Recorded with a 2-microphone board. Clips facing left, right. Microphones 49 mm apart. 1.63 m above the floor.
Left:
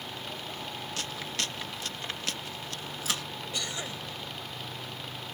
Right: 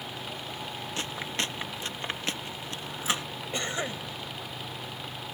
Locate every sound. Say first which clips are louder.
1.0 s chewing: right 3 dB; 25° right (ahead or behind)
3.5 s a cough: right 6 dB; 30° right (ahead or behind)